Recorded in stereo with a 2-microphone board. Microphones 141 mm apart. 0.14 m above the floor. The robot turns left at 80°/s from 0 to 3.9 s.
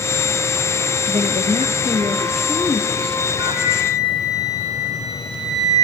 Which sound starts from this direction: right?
A woman speaking, at 1.1 s.